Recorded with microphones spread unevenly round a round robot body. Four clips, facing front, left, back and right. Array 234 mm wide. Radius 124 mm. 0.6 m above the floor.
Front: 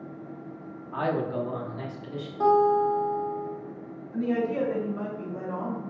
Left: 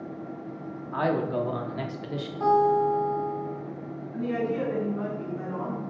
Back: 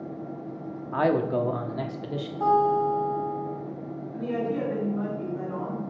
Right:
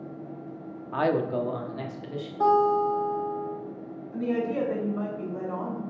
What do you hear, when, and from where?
0.9 s a man speaking: 155° right, 1.0 m; by 2.3 s 155° left, 1.3 m
2.4 s a guitar: 40° right, 3 m
4.1 s a woman speaking: 50° right, 3 m